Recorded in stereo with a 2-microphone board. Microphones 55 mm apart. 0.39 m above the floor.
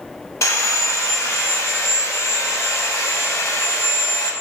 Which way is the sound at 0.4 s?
60° left (ahead or behind).